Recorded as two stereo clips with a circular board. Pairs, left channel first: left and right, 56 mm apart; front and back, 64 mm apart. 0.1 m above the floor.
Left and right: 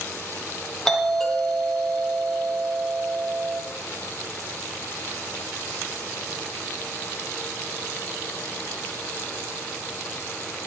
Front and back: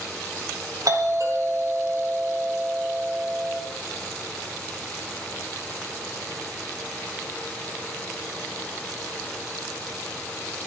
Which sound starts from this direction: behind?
A doorbell, at 0.8 s.